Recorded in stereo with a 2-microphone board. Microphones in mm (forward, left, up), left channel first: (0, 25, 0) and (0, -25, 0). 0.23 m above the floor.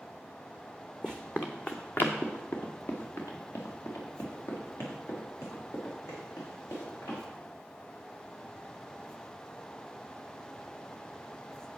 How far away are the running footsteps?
About 1.1 m.